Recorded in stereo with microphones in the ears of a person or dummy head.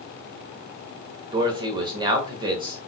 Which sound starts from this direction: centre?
A man speaking, at 1.3 s.